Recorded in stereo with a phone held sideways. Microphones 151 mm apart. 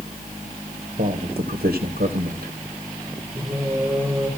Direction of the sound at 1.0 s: 75° right (ahead or behind).